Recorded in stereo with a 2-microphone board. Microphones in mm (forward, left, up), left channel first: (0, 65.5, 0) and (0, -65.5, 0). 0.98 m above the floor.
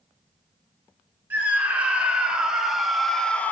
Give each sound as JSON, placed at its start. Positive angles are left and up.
{"t": 1.3, "sound": "a scream", "side_deg": -15, "distance_m": 3.5}